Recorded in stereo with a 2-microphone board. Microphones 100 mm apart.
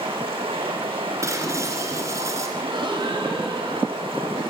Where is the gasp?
60° right (ahead or behind), 5 m.